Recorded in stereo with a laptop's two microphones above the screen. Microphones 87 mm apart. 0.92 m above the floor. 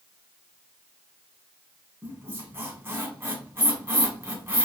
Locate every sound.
2.0 s a squeak: 30° right (ahead or behind), 1.8 m